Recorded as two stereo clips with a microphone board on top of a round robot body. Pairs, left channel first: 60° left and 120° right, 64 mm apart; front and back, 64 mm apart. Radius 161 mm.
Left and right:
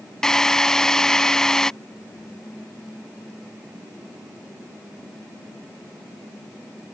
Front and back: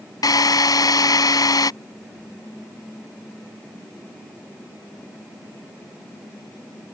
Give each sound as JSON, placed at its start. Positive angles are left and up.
{"t": 0.2, "sound": "a drill", "azimuth_deg": -20}